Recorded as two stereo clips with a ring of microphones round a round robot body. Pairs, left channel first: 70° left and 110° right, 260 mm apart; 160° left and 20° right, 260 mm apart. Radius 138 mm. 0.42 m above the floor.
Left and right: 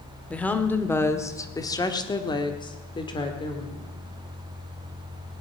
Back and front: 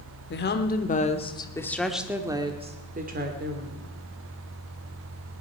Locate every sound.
0.3 s a woman speaking: 150° left, 1.5 m; by 3.9 s straight ahead, 1.7 m